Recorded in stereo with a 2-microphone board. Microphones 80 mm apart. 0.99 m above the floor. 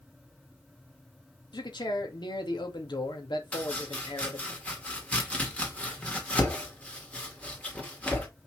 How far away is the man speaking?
About 2.0 m.